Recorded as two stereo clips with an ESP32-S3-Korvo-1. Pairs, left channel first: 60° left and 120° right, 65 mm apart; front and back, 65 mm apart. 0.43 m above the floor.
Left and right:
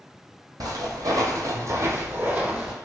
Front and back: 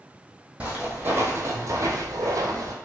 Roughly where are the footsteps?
Behind right.